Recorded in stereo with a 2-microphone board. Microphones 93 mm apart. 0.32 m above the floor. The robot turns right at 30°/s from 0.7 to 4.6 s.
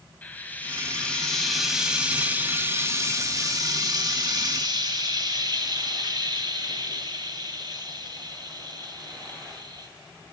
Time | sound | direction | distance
0.2 | frying | 155° left | 2 m